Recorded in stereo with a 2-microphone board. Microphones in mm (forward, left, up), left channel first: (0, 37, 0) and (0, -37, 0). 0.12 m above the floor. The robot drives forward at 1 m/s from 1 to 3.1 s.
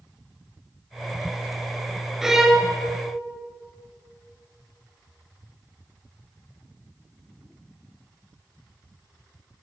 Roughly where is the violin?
Centre.